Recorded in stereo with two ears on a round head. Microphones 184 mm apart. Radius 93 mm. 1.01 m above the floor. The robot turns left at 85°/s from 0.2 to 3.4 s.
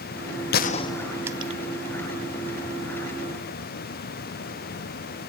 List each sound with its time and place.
0.5 s a gunshot: 50° left (ahead or behind), 0.6 m; by 1.6 s 35° right (ahead or behind), 0.6 m